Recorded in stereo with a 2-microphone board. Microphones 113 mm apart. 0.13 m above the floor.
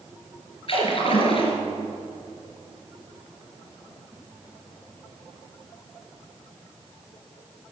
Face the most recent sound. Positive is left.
turn(degrees=50)  # may be behind; listen again after turning